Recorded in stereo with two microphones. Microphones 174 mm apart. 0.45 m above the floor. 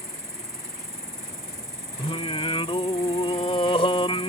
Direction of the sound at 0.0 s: 15° right (ahead or behind).